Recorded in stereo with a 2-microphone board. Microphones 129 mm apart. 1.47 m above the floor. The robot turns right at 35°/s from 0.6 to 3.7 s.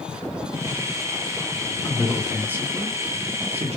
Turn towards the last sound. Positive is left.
turn(degrees=-55)  # may be behind; listen again after turning